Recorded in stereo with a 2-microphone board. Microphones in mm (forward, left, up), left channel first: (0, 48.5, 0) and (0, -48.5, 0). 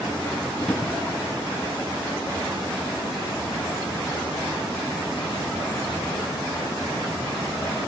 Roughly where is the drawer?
Centre.